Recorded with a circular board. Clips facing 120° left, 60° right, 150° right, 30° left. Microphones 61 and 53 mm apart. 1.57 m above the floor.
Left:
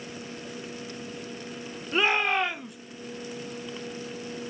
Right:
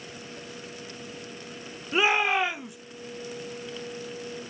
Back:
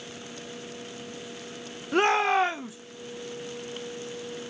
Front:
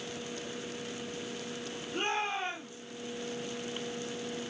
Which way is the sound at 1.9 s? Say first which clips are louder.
Right 1 dB, back 11 dB; 145° right.